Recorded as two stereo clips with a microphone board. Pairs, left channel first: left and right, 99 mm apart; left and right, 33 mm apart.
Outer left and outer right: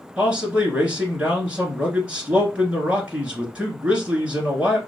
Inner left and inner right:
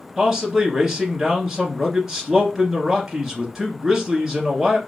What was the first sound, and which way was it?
A man speaking, 10° right (ahead or behind).